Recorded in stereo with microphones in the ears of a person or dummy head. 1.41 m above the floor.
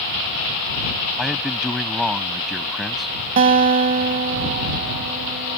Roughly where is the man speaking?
Centre.